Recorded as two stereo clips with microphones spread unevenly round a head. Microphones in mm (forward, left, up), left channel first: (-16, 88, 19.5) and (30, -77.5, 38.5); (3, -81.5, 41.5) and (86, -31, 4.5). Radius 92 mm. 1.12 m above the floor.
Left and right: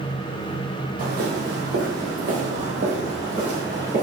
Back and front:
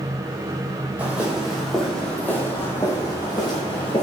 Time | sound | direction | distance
1.0 | footsteps | 55° right | 1.9 m